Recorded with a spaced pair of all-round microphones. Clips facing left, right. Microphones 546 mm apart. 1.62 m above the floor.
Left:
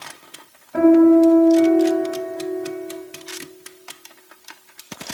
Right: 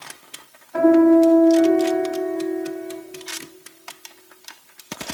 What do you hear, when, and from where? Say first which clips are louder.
0.7 s a piano: left 2 dB; 60° left (ahead or behind), 2.5 m